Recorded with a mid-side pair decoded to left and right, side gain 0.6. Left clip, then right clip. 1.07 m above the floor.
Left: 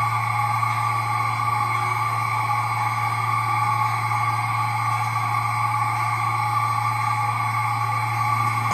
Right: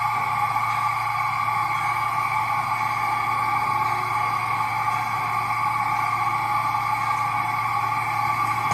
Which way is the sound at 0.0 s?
Straight ahead.